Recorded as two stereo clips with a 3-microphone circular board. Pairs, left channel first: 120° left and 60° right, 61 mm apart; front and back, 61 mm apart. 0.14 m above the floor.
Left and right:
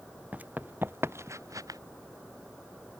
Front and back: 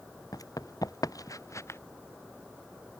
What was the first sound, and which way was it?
Running footsteps, 5° left.